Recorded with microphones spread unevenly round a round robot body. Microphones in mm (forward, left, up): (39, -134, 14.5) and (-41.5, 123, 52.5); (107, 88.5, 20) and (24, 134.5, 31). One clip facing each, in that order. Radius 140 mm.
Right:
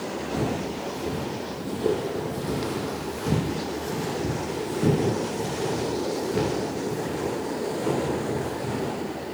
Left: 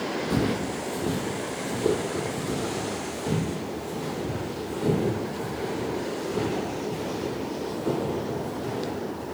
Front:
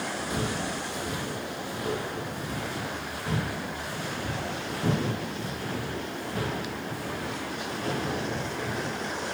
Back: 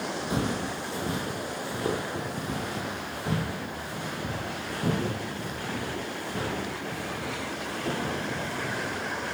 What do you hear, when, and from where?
0.3 s footsteps: 105° left, 1.2 m; by 8.9 s 120° right, 4 m